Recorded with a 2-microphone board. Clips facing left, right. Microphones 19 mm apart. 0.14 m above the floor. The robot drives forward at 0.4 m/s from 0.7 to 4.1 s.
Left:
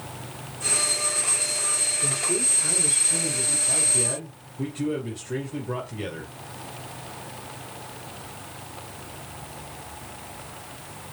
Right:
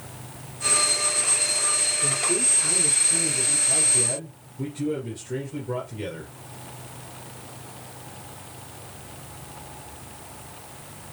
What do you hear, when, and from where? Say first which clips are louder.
2.0 s a man speaking: right 1 dB; 20° left (ahead or behind), 2 m
3.7 s a man speaking: right 1 dB; 10° left (ahead or behind), 2.5 m